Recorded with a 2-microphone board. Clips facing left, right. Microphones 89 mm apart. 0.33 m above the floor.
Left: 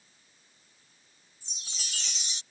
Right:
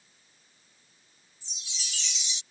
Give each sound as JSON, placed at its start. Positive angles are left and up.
{"t": 1.4, "sound": "a chime", "side_deg": 50}